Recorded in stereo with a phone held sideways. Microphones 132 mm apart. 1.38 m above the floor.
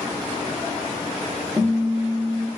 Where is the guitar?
15° right (ahead or behind), 1.2 m.